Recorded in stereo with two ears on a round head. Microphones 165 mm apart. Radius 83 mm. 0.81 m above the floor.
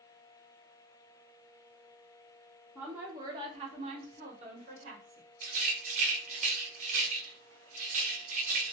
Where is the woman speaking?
5° right (ahead or behind), 0.7 m; by 5.3 s 40° right (ahead or behind), 1.4 m.